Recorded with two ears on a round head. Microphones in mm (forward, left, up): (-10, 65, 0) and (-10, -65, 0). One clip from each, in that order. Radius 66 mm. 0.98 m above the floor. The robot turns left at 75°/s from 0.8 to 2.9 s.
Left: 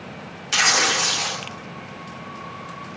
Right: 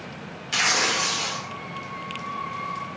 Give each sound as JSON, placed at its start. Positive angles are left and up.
{"t": 0.5, "sound": "tearing paper", "side_deg": 25, "distance_m": 0.6}